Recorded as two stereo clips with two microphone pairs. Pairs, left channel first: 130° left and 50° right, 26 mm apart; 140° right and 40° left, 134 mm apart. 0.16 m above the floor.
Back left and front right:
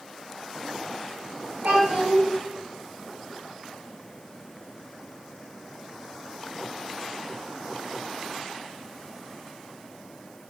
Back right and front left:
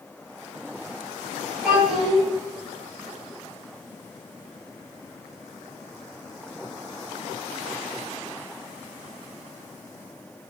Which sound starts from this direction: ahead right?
A child speaking, at 1.6 s.